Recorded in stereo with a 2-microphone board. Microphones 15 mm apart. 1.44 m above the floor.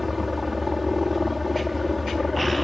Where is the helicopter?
10° right (ahead or behind).